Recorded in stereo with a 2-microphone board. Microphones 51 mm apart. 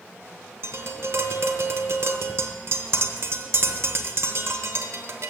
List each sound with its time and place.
0.6 s tapping: 55° right (ahead or behind), 1.0 m